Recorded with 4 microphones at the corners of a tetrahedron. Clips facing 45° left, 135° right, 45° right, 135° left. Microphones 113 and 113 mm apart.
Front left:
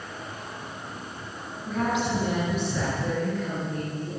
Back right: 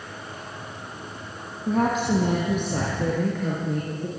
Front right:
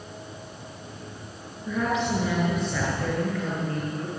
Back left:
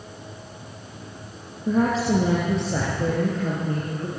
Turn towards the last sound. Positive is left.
turn(degrees=-155)